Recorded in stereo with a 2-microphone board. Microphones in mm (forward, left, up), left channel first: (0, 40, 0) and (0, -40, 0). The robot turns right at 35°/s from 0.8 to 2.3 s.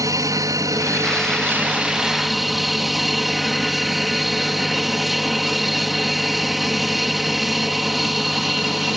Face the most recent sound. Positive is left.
turn(degrees=0)